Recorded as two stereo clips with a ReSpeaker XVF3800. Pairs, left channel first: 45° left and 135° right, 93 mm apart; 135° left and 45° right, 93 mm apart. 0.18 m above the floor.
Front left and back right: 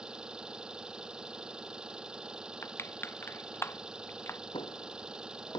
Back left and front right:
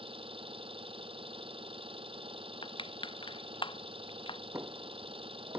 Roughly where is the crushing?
Left.